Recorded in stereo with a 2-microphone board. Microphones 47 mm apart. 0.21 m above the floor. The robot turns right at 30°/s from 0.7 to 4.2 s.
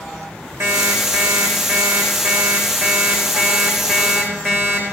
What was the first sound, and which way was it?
An alarm clock, 90° right.